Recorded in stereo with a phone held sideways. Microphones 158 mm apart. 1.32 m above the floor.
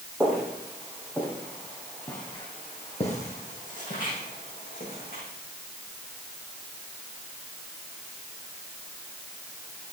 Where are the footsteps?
5° right (ahead or behind), 3.5 m; by 5.2 s 70° left (ahead or behind), 5 m.